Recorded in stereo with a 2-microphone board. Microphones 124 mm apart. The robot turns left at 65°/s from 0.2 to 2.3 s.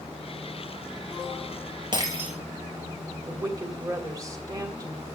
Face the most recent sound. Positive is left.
turn(degrees=-25)  # may be behind; listen again after turning